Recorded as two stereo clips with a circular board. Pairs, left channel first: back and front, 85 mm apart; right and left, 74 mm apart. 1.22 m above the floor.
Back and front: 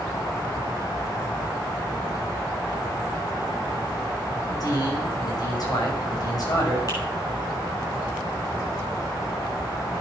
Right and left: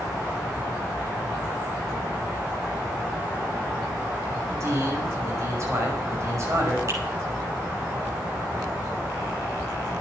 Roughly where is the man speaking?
Behind left.